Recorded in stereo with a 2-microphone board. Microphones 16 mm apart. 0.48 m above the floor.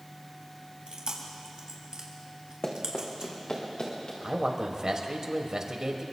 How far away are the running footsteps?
About 2.5 m.